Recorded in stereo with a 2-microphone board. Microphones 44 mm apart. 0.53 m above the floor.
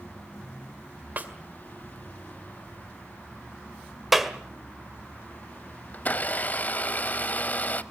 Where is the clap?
5° right (ahead or behind), 1.6 m.